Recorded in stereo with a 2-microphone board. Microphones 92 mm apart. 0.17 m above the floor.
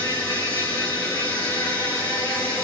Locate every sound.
0.0 s an insect: 30° left (ahead or behind), 3.5 m